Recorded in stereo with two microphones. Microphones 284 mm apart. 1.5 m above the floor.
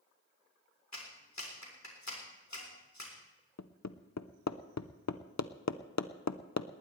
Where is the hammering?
70° left (ahead or behind), 0.7 m.